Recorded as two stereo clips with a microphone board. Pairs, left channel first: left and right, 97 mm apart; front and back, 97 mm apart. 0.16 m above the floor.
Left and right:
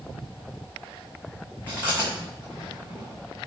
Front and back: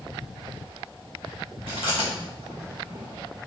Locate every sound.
1.7 s chewing: 165° left, 2.5 m